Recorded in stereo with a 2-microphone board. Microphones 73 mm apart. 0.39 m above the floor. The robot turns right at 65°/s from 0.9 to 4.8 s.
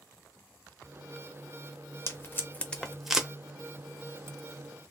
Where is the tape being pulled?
40° left (ahead or behind), 0.7 m; by 3.3 s 15° right (ahead or behind), 0.7 m.